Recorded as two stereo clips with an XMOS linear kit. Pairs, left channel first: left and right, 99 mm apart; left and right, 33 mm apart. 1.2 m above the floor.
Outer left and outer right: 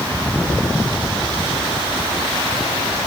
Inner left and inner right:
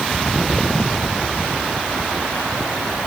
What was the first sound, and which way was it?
Only background noise.